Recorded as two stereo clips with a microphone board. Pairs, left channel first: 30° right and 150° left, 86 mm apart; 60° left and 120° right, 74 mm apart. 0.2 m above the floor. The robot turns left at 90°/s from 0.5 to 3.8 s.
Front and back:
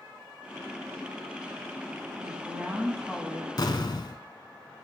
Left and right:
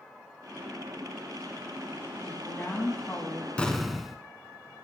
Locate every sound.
2.2 s a woman speaking: 135° left, 1.8 m; by 3.5 s 20° left, 1.8 m
3.6 s an explosion: 10° right, 0.7 m; by 4.2 s 30° right, 0.7 m